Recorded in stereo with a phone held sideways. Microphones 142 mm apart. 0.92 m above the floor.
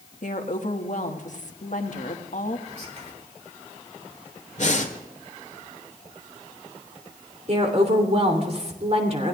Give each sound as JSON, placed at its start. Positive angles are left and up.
{"t": 0.2, "sound": "a woman speaking", "side_deg": 60, "distance_m": 1.5}
{"t": 2.7, "sound": "whispering", "side_deg": -50, "distance_m": 3.0}
{"t": 4.6, "sound": "breathing", "side_deg": 55, "distance_m": 1.4}
{"t": 7.5, "sound": "a woman speaking", "side_deg": -50, "distance_m": 3.0}